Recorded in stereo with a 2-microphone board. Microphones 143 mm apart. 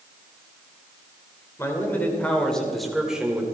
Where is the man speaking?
20° left (ahead or behind), 2.5 m; by 3.4 s 10° right (ahead or behind), 2.5 m.